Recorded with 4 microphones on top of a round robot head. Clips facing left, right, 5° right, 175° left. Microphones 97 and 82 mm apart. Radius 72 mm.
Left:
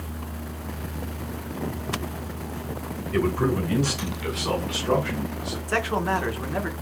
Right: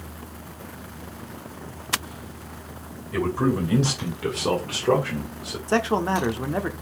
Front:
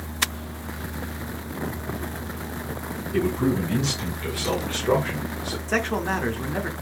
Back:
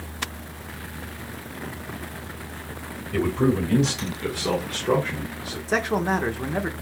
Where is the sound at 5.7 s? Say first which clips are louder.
Right 3 dB, back 2 dB; 115° right, 1.0 m.